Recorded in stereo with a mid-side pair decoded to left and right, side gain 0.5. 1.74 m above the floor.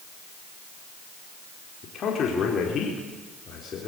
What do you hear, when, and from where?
1.8 s a man speaking: 50° left, 4.5 m